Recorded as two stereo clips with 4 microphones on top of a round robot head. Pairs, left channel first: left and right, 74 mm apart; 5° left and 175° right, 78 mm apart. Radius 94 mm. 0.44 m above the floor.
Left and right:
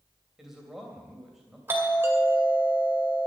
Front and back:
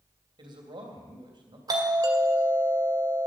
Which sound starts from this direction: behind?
A man speaking, at 0.4 s.